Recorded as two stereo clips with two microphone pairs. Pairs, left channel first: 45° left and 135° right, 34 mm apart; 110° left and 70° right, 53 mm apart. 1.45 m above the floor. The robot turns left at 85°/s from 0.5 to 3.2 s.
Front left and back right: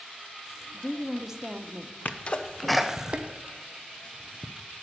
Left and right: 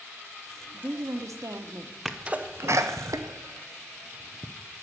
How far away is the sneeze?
About 0.8 m.